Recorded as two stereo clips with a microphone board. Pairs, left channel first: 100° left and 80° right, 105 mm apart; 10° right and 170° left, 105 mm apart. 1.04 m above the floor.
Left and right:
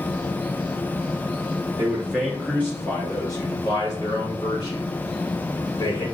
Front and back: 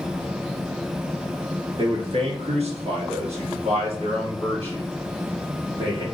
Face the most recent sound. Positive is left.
turn(degrees=135)